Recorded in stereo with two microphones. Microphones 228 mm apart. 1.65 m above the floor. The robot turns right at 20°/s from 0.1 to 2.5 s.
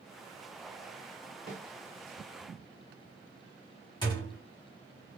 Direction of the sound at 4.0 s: 20° left (ahead or behind).